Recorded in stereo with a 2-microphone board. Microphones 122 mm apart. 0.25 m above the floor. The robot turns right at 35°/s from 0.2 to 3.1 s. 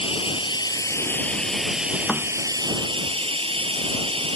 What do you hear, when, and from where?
0.0 s running water: 130° left; by 4.4 s 130° right
2.1 s a thud: 5° right (ahead or behind); by 2.3 s 10° right (ahead or behind)